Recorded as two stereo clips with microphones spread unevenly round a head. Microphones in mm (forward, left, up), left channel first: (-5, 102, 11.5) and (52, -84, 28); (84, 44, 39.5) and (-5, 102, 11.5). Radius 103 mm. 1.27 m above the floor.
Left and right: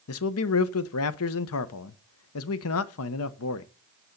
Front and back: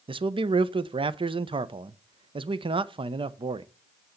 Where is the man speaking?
110° left, 0.7 m.